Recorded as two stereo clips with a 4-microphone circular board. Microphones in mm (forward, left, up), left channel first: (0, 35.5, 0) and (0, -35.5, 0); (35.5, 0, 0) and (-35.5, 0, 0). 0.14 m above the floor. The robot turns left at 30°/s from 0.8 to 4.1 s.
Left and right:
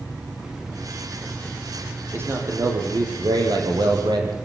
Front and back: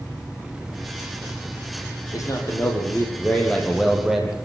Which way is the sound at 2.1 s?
35° right.